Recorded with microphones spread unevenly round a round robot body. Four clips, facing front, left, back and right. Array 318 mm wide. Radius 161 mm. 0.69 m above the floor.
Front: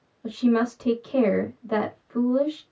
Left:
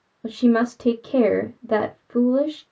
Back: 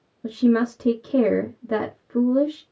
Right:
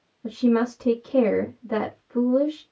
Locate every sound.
0.2 s a woman speaking: 130° left, 1.5 m